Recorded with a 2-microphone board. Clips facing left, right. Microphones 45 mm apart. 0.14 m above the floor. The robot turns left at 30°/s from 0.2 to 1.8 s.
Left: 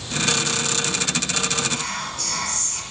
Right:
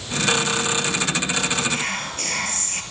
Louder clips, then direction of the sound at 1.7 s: Right 2 dB; 50° right (ahead or behind).